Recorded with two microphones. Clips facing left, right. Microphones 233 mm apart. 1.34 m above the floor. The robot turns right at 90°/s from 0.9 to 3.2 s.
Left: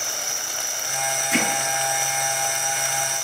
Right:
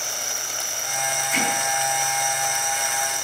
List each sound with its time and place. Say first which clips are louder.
0.0 s an insect: even; 5° right, 9 m; by 3.2 s 155° right, 9 m
1.3 s hammering: left 4 dB; 75° left (ahead or behind), 5 m; by 1.5 s 65° left (ahead or behind), 5 m